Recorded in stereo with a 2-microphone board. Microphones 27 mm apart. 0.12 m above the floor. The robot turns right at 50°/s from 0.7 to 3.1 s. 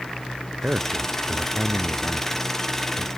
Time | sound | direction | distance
0.6 | a man speaking | 55° right | ?